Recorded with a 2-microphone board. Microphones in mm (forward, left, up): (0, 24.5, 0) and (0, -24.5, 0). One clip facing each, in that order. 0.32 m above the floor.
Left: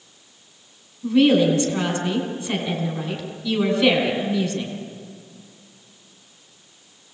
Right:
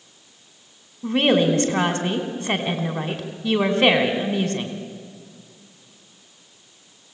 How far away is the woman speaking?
About 2.5 m.